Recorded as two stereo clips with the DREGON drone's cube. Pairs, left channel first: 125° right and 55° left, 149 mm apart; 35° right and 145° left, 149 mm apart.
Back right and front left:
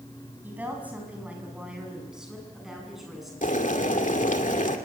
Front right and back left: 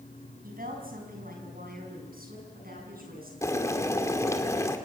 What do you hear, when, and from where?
0.4 s a woman speaking: 135° left, 6 m; by 3.3 s 145° left, 8 m
3.4 s boiling: 100° right, 2 m